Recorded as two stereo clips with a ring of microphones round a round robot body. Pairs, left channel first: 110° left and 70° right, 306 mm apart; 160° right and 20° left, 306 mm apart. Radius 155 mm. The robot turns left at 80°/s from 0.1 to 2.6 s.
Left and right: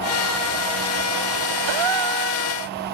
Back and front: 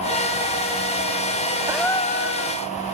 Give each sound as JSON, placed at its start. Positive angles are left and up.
{"t": 1.7, "sound": "a gasp", "azimuth_deg": -60}